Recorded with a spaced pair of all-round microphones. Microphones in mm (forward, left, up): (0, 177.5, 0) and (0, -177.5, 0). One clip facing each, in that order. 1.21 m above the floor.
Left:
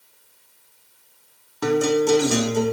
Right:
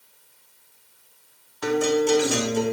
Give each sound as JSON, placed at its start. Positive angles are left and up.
{"t": 1.6, "sound": "a guitar", "side_deg": 55, "distance_m": 0.6}